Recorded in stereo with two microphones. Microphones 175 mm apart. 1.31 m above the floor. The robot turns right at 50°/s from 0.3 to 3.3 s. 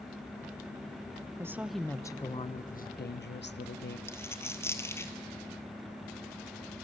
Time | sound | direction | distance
1.4 | a woman speaking | 15° right | 0.6 m
4.1 | a dropped coin | 15° left (ahead or behind) | 1.5 m